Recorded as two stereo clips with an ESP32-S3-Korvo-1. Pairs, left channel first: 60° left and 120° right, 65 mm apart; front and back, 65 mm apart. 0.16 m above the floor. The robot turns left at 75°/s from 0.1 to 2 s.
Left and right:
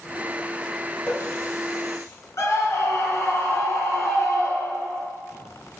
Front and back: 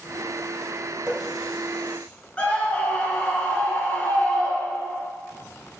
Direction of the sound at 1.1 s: 125° left.